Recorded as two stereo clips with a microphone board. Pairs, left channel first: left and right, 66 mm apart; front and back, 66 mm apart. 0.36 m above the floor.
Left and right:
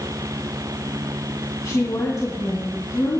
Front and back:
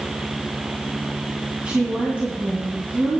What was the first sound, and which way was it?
A woman speaking, 110° left.